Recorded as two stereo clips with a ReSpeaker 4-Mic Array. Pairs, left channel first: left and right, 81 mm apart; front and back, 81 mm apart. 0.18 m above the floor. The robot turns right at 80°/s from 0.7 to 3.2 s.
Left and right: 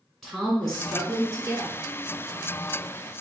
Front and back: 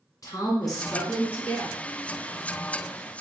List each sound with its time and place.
0.2 s a woman speaking: 5° left, 2 m; by 1.8 s 85° left, 2 m